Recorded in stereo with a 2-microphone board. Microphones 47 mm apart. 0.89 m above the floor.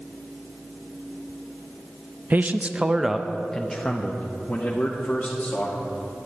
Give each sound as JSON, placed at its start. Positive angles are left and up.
{"t": 2.3, "sound": "a man speaking", "side_deg": -40, "distance_m": 0.5}